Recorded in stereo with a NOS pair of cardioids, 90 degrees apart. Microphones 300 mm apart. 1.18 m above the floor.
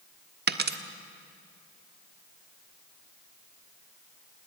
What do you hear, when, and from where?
0.5 s a dropped coin: 35° right, 1.4 m